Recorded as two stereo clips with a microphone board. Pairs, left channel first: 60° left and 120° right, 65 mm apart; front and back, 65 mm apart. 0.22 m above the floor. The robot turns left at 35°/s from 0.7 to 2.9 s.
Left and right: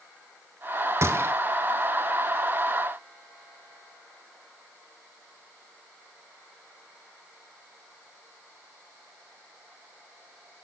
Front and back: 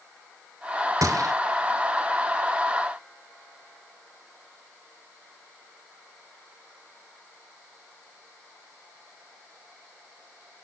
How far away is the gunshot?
About 1.0 m.